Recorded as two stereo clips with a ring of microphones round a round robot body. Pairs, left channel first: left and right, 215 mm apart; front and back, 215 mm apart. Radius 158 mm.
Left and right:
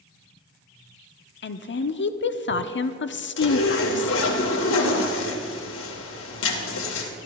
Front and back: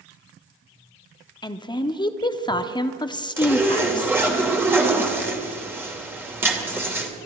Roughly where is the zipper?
Left.